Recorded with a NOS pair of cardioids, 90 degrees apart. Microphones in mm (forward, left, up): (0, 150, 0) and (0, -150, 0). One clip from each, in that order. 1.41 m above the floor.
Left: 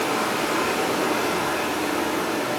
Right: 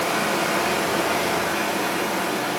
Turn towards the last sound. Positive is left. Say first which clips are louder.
# right 1 dB
turn(degrees=-30)